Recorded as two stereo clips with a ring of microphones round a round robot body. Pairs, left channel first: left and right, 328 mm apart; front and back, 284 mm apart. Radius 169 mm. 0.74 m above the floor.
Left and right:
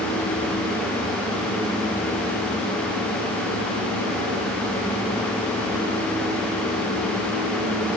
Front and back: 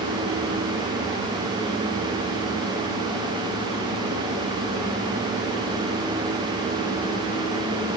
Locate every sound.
Only background noise.